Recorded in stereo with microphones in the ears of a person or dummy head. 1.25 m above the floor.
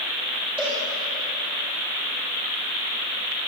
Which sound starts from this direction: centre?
A cowbell, at 0.6 s.